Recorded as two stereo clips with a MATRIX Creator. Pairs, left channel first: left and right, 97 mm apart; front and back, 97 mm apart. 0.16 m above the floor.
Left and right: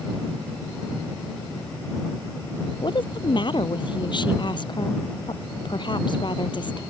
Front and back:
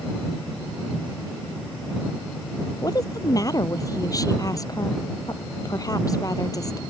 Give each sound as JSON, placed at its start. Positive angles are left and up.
{"t": 2.8, "sound": "a woman speaking", "azimuth_deg": 55}